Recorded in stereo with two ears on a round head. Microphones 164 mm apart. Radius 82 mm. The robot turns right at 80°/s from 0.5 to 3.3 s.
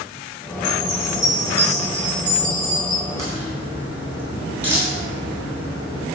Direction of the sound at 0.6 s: 115° left.